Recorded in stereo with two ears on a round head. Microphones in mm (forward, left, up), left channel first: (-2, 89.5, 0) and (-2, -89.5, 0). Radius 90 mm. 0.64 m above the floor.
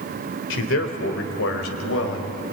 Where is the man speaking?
65° left (ahead or behind), 2.5 m; by 2.4 s 75° left (ahead or behind), 3.5 m.